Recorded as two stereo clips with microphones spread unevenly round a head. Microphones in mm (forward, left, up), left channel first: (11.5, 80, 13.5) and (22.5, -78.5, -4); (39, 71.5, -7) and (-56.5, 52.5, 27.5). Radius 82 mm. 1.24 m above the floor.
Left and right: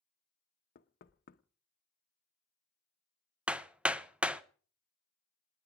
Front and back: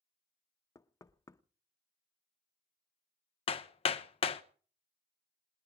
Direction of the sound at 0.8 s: 75° left.